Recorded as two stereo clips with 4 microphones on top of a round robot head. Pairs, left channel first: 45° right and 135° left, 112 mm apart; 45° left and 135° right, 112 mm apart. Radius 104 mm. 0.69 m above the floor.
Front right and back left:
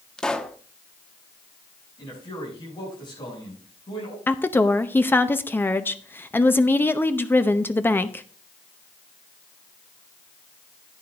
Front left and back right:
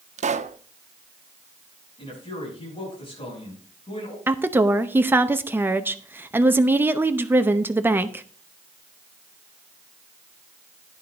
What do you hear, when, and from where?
0.2 s a pop: 130° right, 0.8 m
2.0 s a man speaking: straight ahead, 6.5 m
4.3 s a woman speaking: 90° right, 0.9 m